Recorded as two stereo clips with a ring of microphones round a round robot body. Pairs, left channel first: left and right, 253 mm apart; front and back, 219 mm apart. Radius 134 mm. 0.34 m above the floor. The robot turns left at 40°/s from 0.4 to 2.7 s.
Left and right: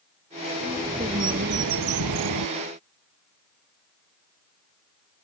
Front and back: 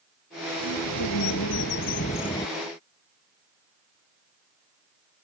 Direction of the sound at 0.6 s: 5° right.